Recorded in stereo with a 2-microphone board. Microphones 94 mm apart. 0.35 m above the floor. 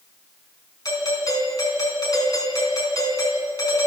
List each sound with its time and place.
0.8 s a doorbell: 40° left (ahead or behind), 4 m